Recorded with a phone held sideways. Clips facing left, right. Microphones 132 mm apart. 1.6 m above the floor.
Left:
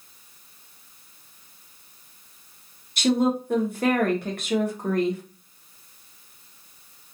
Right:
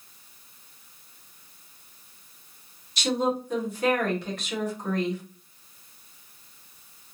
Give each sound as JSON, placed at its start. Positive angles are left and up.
{"t": 3.0, "sound": "a woman speaking", "side_deg": 55, "distance_m": 1.4}